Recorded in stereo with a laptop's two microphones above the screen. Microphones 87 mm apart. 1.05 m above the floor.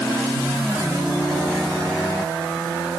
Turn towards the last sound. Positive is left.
No sound to turn to.